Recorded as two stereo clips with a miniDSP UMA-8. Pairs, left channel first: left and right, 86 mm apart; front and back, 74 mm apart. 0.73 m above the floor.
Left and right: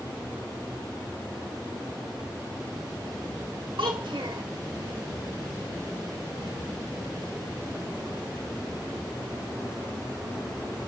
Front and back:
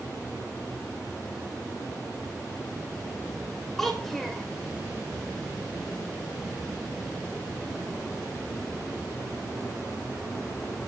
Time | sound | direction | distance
3.8 | a child speaking | 85° right | 1.3 m